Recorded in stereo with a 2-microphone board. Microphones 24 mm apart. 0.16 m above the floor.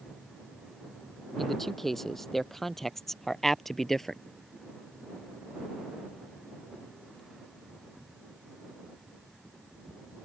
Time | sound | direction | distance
1.4 | a man speaking | 10° left (ahead or behind) | ?